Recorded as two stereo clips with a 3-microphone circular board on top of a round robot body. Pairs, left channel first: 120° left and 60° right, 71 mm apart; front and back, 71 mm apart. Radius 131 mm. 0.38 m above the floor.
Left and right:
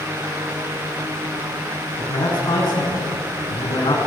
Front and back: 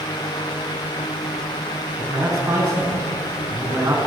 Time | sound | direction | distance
2.0 | a man speaking | 130° left | 5.5 m